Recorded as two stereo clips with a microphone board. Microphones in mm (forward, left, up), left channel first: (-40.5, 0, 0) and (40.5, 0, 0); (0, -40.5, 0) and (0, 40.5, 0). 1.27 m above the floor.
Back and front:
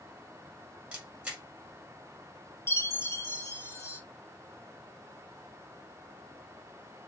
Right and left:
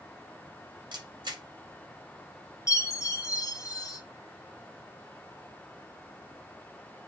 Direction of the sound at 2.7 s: 125° right.